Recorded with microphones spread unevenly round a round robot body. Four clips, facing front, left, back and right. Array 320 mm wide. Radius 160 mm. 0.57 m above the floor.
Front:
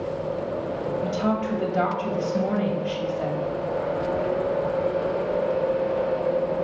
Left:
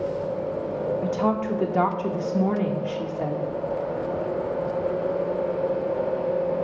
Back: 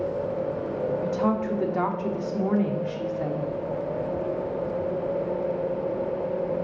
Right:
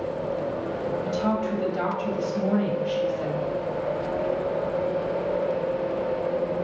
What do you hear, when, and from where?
1.0 s a woman speaking: 95° left, 1.2 m